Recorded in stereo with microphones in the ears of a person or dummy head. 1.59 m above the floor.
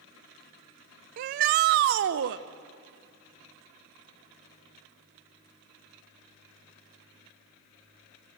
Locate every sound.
1.2 s a shout: 35° right (ahead or behind), 0.5 m; by 2.4 s 65° right (ahead or behind), 1.1 m